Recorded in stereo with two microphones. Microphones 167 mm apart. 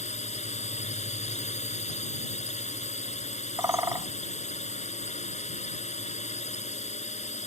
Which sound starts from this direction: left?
A drone, at 0.0 s.